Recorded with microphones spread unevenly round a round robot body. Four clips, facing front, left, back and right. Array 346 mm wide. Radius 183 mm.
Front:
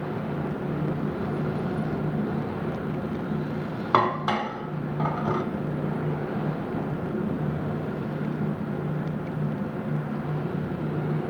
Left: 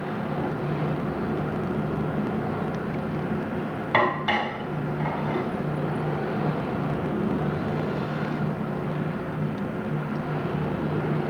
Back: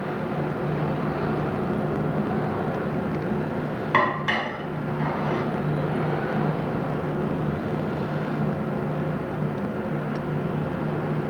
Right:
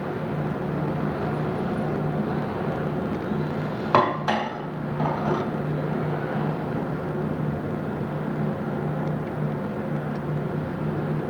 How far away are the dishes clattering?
About 2 m.